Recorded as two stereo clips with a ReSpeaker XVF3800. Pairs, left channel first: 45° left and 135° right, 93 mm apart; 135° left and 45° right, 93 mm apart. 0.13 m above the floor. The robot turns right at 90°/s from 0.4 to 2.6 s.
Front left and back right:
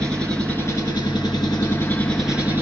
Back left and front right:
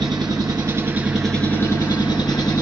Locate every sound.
0.0 s an engine running: 30° right, 1.7 m; by 2.6 s 165° left, 1.7 m